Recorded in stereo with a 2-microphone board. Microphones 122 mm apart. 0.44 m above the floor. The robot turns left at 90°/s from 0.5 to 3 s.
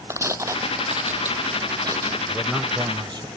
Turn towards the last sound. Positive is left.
turn(degrees=-45)